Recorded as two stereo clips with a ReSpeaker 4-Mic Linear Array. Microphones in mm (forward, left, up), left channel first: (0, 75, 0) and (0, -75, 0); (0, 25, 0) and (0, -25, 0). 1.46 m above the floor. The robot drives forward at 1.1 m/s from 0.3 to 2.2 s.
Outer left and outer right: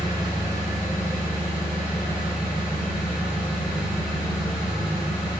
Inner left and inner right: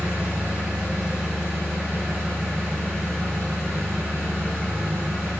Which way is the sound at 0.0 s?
25° right (ahead or behind).